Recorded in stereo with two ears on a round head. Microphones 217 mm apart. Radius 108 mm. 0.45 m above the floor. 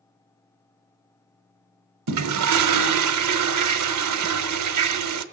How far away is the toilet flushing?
About 0.8 m.